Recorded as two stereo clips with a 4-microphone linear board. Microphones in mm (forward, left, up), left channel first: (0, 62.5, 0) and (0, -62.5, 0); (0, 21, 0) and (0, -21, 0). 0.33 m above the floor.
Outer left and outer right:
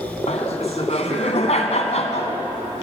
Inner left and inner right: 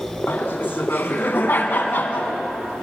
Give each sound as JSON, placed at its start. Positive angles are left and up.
{"t": 0.3, "sound": "laughter", "side_deg": 60, "distance_m": 3.0}